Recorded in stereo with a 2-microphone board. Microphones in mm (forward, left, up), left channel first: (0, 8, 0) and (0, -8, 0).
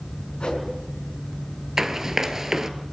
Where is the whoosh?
80° left, 6.5 m.